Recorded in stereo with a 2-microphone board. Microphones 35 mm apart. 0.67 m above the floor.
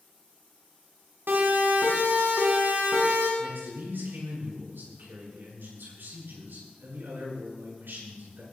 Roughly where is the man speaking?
Right.